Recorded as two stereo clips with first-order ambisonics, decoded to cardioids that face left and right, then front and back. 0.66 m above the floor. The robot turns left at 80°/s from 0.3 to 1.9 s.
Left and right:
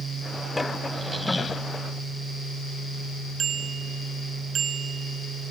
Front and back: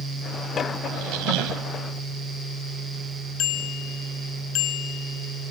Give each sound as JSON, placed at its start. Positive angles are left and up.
{"t": 0.9, "sound": "a squeak", "azimuth_deg": -150}
{"t": 3.4, "sound": "a bicycle bell", "azimuth_deg": -30}